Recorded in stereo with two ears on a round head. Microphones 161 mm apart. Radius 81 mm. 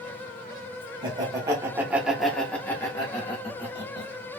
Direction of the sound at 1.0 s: 25° right (ahead or behind).